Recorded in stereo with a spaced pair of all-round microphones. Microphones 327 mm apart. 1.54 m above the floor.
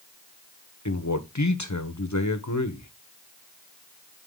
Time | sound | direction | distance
0.8 | a man speaking | 60° left (ahead or behind) | 1.3 m